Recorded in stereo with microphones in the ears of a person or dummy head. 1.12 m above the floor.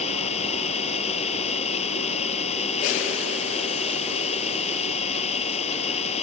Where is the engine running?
40° left (ahead or behind).